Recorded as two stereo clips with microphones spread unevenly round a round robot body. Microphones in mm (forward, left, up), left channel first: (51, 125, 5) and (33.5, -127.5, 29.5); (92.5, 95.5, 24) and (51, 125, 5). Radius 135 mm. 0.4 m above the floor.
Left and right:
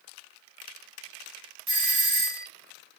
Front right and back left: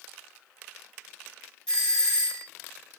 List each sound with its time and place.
1.7 s a doorbell: 145° right, 1.9 m